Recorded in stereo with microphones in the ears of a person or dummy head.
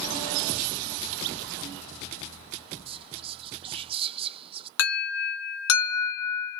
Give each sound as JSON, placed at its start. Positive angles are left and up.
{"t": 2.9, "sound": "whispering", "side_deg": -30, "distance_m": 0.6}
{"t": 4.8, "sound": "an alarm", "side_deg": 70, "distance_m": 2.0}